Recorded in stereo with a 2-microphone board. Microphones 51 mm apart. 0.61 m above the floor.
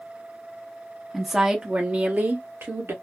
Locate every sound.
1.1 s a woman speaking: centre (ahead or behind), 0.8 m; by 2.9 s 50° right (ahead or behind), 1.2 m